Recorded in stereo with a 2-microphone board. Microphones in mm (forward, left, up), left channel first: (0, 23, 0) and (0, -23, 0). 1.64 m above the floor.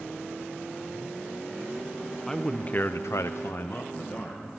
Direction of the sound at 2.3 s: 10° left (ahead or behind).